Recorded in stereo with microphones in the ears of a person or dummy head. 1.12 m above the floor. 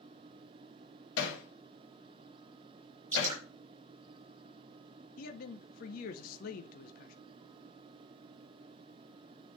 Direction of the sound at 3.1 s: 35° right (ahead or behind).